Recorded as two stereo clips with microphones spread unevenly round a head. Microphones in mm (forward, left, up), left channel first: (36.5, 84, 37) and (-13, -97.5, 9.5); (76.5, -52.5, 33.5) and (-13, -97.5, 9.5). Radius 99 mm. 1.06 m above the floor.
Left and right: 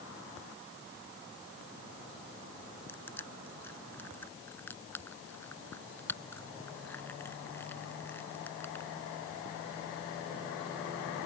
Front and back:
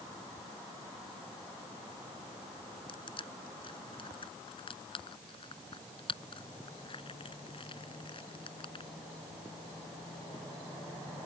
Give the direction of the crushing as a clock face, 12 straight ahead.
12 o'clock.